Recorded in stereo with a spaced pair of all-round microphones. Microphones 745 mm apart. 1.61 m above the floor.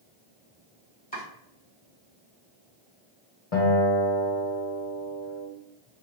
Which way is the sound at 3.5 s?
50° left (ahead or behind).